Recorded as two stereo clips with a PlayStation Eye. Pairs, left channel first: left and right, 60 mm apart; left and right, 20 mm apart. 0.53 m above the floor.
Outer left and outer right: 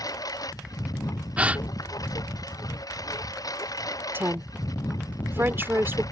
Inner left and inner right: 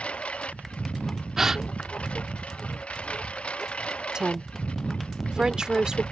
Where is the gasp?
20° right (ahead or behind).